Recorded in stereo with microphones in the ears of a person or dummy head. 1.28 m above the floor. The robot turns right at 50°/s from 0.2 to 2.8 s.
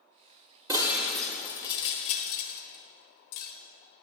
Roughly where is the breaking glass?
Centre.